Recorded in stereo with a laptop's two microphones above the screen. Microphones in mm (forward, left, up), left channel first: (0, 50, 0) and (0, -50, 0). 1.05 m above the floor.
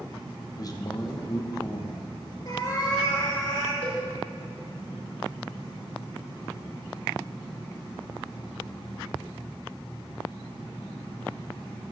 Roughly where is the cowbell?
Left.